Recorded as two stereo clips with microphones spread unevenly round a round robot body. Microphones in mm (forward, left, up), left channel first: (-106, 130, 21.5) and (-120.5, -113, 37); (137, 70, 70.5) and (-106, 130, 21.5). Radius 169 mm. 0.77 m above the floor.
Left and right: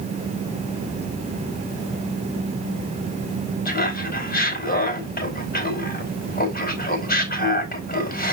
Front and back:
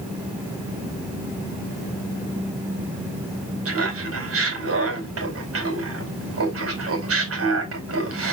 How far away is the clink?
No clink in this recording.